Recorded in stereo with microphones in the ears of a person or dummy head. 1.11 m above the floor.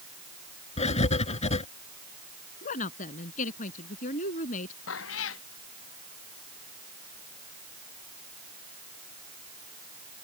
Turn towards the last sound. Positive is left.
turn(degrees=75)  # may be behind; listen again after turning